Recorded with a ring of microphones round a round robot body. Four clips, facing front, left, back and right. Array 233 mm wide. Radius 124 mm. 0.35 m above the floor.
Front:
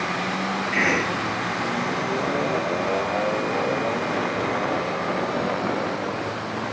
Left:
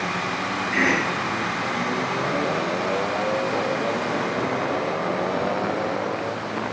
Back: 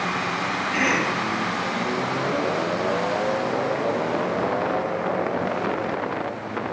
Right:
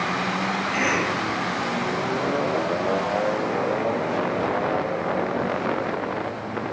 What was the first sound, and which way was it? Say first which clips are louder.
A cough: left 3 dB, back 1 dB; 75° left.